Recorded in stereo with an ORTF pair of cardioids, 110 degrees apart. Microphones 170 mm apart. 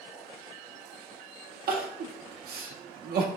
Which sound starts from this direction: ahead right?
Crying, at 1.7 s.